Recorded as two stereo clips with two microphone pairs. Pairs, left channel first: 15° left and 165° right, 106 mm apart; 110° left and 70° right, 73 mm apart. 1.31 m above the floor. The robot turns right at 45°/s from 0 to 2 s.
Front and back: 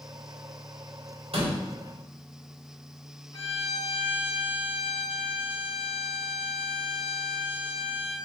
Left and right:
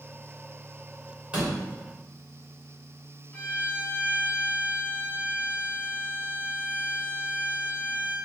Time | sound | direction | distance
1.3 | a door slam | 145° right | 2 m
3.3 | a violin | 40° left | 1.4 m